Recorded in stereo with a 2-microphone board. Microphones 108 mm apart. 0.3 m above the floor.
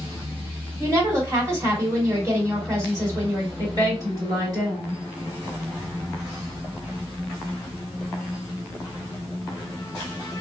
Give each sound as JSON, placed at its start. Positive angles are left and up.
{"t": 0.8, "sound": "a woman speaking", "side_deg": -30, "distance_m": 1.5}
{"t": 3.6, "sound": "a woman speaking", "side_deg": -35, "distance_m": 1.8}